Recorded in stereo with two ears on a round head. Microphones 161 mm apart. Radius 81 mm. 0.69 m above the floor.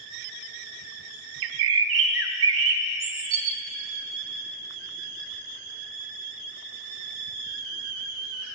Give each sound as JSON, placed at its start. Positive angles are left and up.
{"t": 1.4, "sound": "a bird", "side_deg": -75, "distance_m": 0.6}